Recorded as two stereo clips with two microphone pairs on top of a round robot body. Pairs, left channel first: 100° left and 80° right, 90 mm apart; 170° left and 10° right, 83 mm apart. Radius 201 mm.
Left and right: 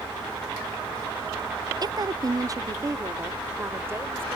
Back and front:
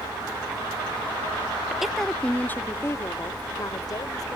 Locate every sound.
1.8 s a woman speaking: 90° right; by 4.4 s 150° right